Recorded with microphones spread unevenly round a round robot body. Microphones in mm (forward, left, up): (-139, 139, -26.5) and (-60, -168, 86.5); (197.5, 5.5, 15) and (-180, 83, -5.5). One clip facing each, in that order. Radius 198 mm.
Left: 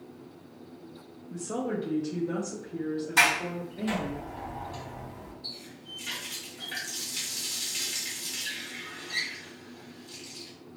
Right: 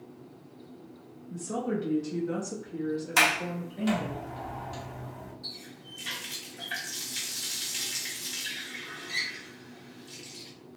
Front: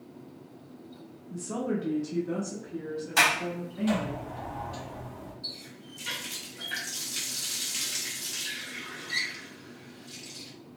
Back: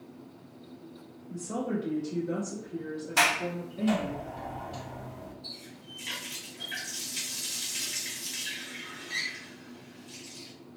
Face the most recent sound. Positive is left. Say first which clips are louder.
# left 1 dB, front 1 dB
turn(degrees=-65)